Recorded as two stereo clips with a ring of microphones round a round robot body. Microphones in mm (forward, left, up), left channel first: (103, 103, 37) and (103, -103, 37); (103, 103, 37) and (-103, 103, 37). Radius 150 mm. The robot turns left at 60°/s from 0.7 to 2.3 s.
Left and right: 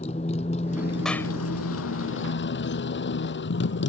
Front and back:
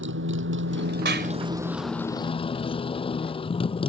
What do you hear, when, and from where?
0.0 s a motorcycle: 160° left; by 3.9 s 65° left
1.1 s a clap: straight behind; by 1.3 s 160° left